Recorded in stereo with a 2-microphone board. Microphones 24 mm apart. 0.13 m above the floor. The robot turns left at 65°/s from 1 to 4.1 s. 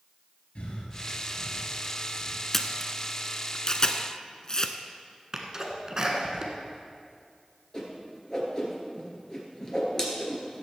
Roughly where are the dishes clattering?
I don't hear dishes clattering.